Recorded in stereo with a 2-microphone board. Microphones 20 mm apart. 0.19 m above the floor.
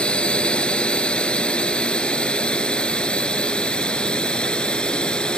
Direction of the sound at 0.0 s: 55° left (ahead or behind).